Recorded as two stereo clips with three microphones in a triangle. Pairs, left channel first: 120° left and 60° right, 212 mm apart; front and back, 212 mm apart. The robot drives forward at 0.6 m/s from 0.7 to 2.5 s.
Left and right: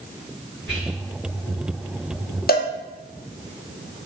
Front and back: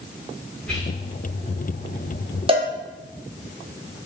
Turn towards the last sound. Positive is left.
turn(degrees=130)